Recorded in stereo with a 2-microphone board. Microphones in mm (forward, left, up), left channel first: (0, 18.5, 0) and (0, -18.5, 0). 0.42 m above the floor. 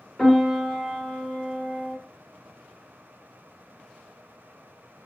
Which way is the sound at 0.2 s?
15° left (ahead or behind).